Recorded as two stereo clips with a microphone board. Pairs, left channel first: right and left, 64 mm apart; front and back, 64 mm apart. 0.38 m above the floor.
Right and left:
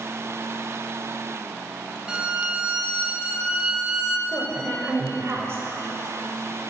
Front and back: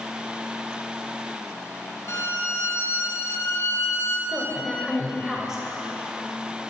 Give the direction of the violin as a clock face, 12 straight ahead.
11 o'clock.